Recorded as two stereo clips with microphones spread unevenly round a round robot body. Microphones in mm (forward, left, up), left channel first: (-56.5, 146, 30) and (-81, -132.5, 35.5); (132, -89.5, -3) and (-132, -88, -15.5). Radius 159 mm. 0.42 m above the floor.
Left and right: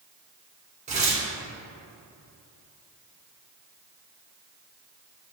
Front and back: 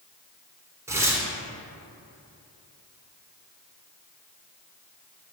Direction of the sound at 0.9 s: 120° right.